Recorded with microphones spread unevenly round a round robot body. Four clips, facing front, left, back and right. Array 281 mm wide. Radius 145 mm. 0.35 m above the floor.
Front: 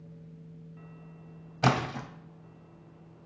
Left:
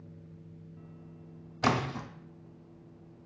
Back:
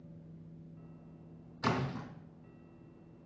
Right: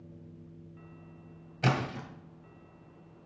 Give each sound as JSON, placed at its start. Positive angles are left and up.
{"t": 1.6, "sound": "a splash", "azimuth_deg": 5, "distance_m": 1.9}